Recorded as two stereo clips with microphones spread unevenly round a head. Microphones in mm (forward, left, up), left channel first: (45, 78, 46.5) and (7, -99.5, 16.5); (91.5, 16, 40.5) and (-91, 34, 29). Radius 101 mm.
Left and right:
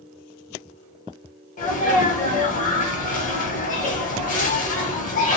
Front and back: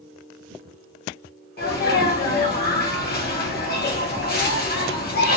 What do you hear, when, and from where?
1.6 s a sneeze: 30° left, 1.2 m